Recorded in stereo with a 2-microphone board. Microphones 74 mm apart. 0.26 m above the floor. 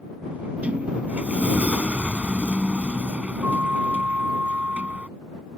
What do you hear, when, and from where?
0.3 s a sliding door: 20° right (ahead or behind)